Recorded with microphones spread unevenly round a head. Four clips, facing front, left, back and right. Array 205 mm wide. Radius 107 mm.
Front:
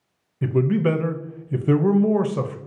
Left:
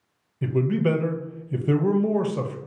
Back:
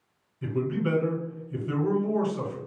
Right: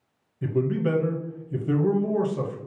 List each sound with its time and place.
0.4 s a man speaking: 20° left, 0.6 m